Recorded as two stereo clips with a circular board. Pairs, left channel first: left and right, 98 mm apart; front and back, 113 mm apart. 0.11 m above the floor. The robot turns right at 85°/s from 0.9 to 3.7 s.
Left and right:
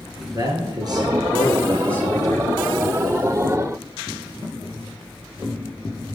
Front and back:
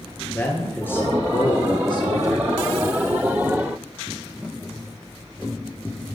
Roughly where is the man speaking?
Ahead right.